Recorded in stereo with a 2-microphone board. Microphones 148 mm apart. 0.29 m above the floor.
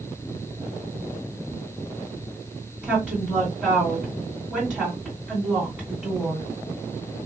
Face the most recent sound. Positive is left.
turn(degrees=-5)  # may be behind; listen again after turning